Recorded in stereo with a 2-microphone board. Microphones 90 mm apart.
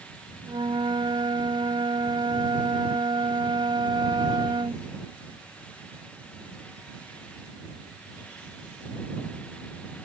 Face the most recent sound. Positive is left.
turn(degrees=-60)  # may be behind; listen again after turning